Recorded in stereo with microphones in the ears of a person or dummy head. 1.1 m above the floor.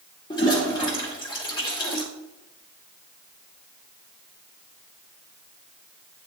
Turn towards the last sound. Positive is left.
turn(degrees=25)  # may be behind; listen again after turning